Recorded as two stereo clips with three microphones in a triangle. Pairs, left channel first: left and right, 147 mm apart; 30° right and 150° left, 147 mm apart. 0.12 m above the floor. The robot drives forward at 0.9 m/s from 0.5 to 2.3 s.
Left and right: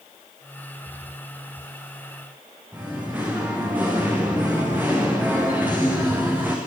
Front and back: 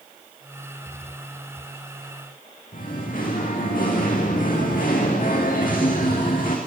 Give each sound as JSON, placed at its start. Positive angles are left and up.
{"t": 2.7, "sound": "singing", "azimuth_deg": -10, "distance_m": 4.0}